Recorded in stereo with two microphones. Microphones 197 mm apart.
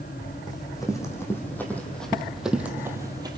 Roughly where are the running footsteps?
Centre.